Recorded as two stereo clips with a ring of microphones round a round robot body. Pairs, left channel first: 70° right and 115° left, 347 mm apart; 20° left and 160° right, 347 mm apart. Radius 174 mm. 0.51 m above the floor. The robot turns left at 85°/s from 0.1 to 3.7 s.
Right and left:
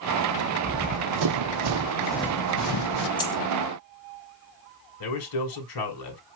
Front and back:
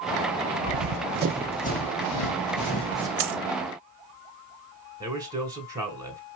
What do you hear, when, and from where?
0.7 s running footsteps: 155° right, 1.3 m; by 3.1 s 80° right, 1.2 m
3.2 s a dropped coin: 145° right, 0.9 m; by 3.4 s 160° right, 0.9 m
5.0 s a man speaking: 80° right, 2 m